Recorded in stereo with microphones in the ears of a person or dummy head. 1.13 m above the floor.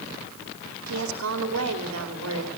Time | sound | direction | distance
0.9 | a woman speaking | 75° right (ahead or behind) | 2 m